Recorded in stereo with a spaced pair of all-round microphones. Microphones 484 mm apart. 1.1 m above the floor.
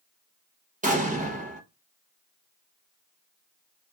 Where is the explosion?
15° right (ahead or behind), 1.0 m.